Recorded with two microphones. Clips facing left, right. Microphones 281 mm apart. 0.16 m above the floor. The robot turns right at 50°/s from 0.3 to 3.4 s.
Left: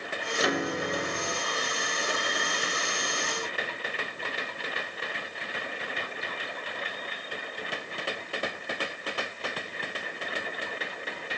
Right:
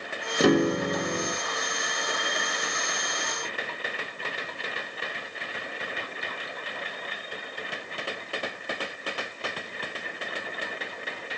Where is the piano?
80° right, 1.2 m; by 1.4 s 30° right, 1.2 m.